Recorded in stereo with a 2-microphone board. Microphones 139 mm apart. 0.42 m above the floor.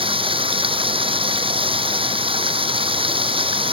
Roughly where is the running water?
Right.